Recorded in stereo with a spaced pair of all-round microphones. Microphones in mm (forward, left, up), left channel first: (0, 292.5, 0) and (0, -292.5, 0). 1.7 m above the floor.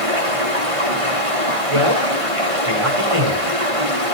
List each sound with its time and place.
0.0 s running water: 75° right (ahead or behind), 8.5 m
1.7 s a man speaking: 70° right (ahead or behind), 5.5 m